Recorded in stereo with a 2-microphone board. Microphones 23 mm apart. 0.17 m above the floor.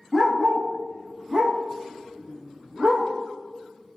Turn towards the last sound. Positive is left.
turn(degrees=-50)  # may be behind; listen again after turning